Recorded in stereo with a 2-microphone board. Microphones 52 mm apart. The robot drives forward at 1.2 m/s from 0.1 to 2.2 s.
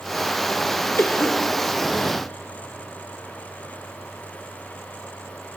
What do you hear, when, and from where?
1.0 s a cough: 55° left (ahead or behind), 1.5 m